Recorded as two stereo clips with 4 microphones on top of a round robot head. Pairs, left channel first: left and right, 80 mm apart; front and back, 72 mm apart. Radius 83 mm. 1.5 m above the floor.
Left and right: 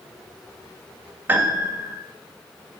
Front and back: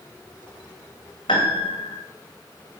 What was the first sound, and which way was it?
A piano, 25° right.